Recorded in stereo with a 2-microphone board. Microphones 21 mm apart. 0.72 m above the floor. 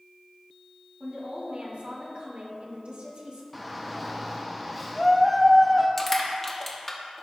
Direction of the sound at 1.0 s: 65° right (ahead or behind).